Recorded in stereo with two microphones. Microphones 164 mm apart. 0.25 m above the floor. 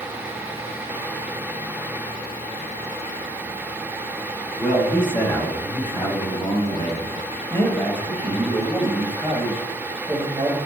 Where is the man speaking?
30° left (ahead or behind), 3 m; by 10.6 s 25° right (ahead or behind), 1.7 m.